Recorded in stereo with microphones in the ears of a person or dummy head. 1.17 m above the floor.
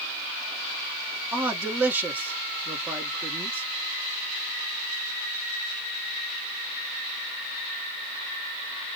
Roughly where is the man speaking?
Centre.